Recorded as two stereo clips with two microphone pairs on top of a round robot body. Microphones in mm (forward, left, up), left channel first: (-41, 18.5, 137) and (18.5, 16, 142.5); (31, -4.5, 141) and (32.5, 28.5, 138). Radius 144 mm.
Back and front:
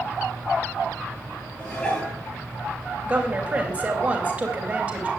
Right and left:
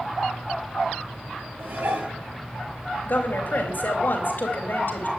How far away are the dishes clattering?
About 8 m.